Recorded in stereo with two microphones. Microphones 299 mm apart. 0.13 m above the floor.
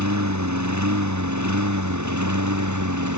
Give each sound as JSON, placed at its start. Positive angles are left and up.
{"t": 0.0, "sound": "a lawn mower", "side_deg": -60}